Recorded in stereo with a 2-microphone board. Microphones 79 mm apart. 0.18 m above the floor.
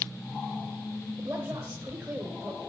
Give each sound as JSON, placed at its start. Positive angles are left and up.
{"t": 1.2, "sound": "a woman speaking", "side_deg": -15, "distance_m": 3.0}